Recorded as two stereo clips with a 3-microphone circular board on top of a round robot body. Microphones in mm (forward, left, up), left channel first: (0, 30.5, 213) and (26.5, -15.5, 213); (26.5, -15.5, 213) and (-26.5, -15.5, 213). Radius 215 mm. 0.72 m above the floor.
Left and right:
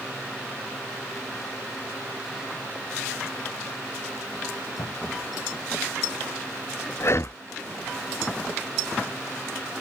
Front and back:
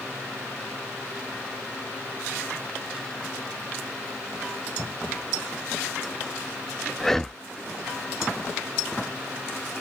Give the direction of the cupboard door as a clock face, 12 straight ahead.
8 o'clock.